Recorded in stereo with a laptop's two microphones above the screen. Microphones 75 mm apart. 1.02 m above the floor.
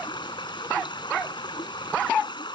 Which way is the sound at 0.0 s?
80° left.